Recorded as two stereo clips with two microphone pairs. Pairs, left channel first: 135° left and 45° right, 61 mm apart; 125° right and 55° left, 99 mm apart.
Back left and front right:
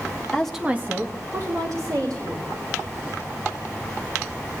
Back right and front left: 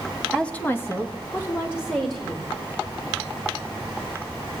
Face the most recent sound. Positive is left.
turn(degrees=-60)